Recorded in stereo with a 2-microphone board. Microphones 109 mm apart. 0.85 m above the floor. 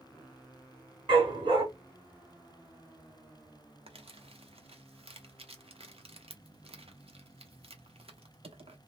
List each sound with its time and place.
1.1 s a dog barking: 50° right (ahead or behind), 1.9 m
3.9 s crumpling: 65° right (ahead or behind), 0.8 m